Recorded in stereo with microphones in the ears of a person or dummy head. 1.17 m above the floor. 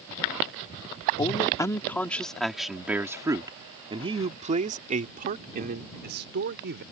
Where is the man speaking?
25° left (ahead or behind); by 6.8 s 55° right (ahead or behind).